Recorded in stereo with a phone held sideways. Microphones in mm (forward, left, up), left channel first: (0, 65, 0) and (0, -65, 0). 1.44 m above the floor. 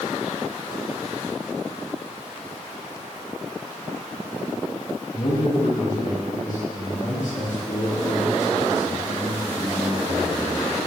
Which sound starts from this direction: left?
A man speaking, at 5.1 s.